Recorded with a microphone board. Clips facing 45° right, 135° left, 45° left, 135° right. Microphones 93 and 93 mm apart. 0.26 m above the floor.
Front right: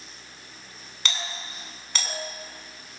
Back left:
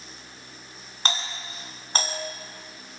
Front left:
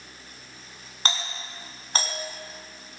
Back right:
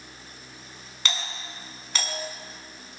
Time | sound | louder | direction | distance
1.1 | a doorbell | back left 3 dB, front left 2 dB | 90° left | 3.5 m